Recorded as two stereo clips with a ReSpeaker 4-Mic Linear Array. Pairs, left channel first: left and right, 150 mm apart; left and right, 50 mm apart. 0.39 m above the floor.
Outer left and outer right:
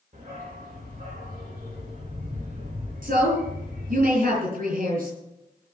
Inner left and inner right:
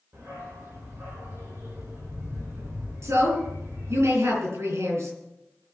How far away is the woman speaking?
About 8 m.